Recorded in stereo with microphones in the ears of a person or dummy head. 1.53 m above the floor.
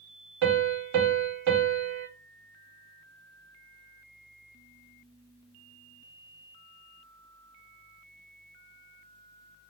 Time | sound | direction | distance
0.4 | a piano | 65° right (ahead or behind) | 0.8 m